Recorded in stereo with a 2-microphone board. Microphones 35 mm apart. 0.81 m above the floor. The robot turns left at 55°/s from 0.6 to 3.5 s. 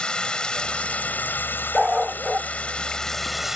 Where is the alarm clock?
No alarm clock in this recording.